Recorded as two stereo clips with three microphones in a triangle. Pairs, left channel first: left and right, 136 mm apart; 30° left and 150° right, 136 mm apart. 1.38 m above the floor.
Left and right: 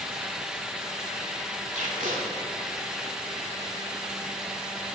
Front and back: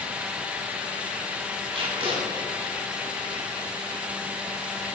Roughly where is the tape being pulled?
Right.